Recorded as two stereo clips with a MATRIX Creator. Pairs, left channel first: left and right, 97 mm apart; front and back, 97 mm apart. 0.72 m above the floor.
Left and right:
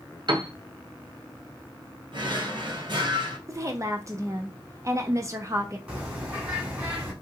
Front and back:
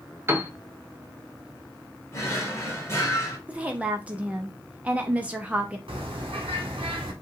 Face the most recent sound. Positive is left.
turn(degrees=-160)